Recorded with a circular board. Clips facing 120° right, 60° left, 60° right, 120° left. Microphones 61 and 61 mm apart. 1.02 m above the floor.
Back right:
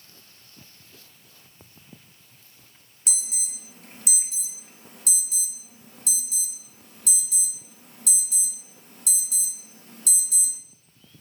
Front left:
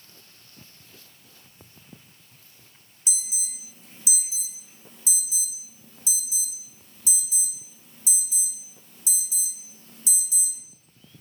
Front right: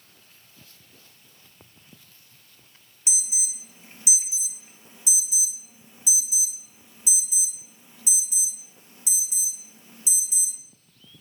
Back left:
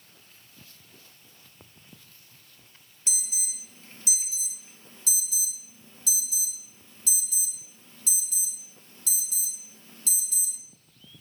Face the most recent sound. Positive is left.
turn(degrees=-135)